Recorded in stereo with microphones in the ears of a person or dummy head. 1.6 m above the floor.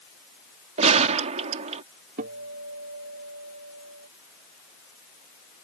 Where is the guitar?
50° right (ahead or behind).